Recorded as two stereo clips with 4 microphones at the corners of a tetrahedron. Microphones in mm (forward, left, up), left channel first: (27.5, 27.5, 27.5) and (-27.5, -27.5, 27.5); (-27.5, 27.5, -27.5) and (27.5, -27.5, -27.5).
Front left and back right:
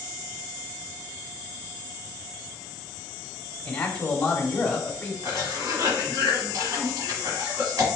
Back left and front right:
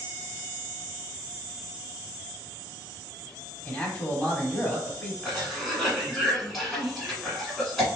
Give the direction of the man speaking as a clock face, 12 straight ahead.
9 o'clock.